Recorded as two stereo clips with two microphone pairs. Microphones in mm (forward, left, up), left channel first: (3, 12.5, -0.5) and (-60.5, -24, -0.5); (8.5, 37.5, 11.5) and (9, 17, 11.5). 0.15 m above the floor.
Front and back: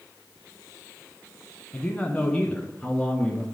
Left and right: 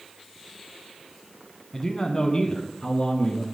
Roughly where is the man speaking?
Ahead left.